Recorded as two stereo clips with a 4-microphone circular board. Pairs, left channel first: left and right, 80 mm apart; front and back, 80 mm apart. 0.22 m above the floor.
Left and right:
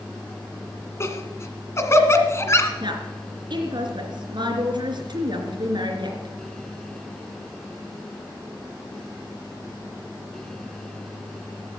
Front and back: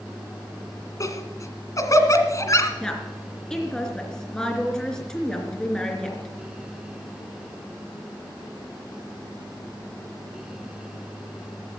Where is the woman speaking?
80° right, 3 m.